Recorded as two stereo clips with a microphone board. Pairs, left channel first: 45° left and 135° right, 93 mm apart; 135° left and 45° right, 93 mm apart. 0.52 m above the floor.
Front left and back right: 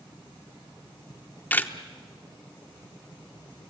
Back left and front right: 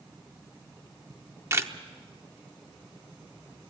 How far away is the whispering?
No whispering in this recording.